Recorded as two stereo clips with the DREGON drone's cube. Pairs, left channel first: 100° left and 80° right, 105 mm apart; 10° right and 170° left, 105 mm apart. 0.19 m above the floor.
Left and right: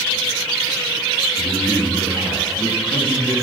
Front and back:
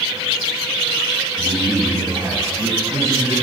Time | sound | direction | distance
1.4 | a man speaking | 165° left | 1.2 m